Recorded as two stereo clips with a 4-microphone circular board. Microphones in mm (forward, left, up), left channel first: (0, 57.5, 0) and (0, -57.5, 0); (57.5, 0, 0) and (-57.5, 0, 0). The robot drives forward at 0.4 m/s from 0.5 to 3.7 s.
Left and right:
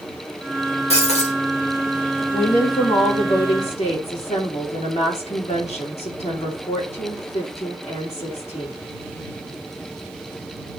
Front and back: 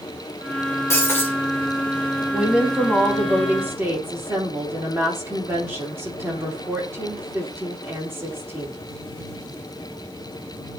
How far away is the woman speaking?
About 2 m.